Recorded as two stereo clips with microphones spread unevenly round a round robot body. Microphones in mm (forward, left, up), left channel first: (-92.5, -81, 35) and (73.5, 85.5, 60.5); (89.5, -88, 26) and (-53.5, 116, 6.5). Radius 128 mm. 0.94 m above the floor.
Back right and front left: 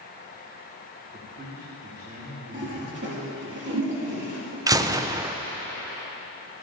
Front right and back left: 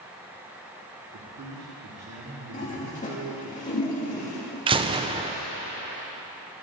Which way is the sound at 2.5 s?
5° left.